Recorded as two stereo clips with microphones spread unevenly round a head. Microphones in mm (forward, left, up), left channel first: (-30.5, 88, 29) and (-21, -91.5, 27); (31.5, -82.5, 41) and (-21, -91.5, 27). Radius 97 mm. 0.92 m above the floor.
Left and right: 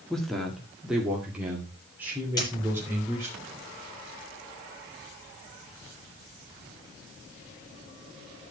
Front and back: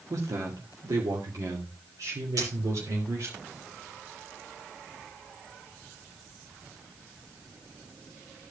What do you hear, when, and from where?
0.1 s a man speaking: straight behind, 1.9 m; by 3.4 s 165° right, 3.5 m
2.4 s a dropped coin: 160° left, 7 m